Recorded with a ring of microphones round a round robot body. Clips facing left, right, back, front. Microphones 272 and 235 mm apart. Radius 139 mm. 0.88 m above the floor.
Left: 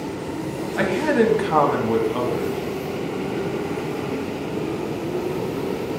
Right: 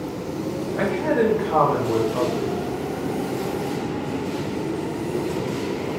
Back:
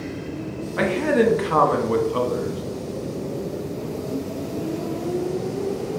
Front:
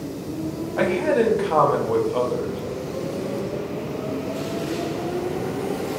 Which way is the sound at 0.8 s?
115° left.